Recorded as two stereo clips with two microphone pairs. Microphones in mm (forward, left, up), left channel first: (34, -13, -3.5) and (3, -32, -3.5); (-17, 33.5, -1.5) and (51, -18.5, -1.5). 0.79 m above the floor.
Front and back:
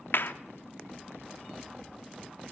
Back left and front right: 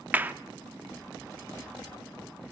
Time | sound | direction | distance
0.1 | a clap | 30° left | 1.3 m